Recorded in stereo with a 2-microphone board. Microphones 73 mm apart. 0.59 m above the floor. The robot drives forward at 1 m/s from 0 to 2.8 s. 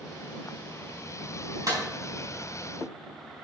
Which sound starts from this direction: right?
A clap, at 1.7 s.